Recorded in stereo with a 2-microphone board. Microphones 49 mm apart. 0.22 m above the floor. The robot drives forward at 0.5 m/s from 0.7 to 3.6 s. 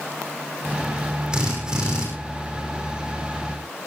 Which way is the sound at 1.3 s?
15° right (ahead or behind).